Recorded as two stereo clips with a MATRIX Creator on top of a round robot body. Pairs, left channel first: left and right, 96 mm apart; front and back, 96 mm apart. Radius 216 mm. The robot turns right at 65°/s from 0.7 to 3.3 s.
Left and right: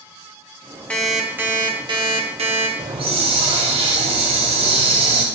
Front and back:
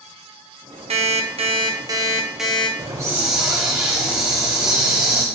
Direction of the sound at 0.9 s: 170° left.